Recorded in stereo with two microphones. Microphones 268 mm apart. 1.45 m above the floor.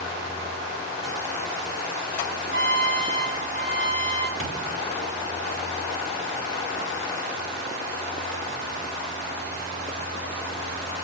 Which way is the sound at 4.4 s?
55° right (ahead or behind).